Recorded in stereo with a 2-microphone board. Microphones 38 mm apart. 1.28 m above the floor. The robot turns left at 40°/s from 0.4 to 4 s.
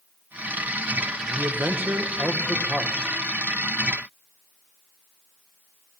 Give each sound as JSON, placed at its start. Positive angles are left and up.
{"t": 1.3, "sound": "a man speaking", "azimuth_deg": -100, "distance_m": 0.9}